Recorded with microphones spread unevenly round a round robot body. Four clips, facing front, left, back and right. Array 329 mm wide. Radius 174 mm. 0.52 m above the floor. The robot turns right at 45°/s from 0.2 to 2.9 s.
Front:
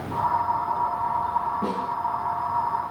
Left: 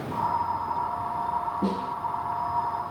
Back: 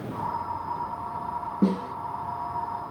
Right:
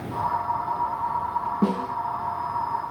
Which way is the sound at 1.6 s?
150° right.